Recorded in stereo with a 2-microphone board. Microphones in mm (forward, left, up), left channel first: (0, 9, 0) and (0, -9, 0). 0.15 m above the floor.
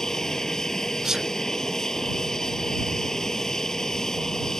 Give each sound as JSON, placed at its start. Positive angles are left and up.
{"t": 0.0, "sound": "an aircraft", "side_deg": 35}
{"t": 1.0, "sound": "a sneeze", "side_deg": -30}